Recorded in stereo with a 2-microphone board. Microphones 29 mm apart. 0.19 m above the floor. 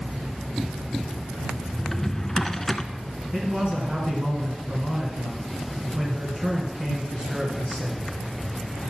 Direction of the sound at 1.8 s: 10° left (ahead or behind).